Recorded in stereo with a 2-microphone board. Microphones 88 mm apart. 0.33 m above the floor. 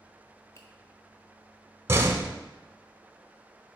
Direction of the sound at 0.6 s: 40° left (ahead or behind).